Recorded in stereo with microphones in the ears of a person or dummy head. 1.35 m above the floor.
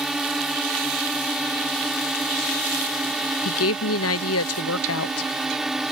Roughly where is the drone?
Centre.